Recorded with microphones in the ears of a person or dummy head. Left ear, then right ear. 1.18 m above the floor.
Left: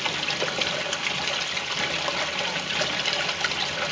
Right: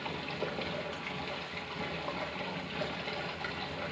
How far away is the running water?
About 0.9 m.